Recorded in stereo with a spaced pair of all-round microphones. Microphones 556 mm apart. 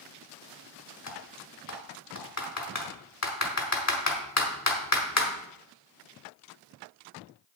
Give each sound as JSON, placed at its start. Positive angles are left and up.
{"t": 1.1, "sound": "typing on a keyboard", "side_deg": 30, "distance_m": 1.4}